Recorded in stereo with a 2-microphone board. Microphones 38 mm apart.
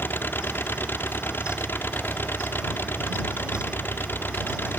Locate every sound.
0.0 s an engine running: 80° left